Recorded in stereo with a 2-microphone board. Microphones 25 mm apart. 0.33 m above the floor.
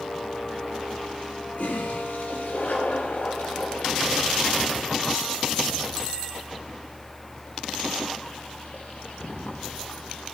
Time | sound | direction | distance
1.6 | a toilet flushing | 75° left (ahead or behind) | 10 m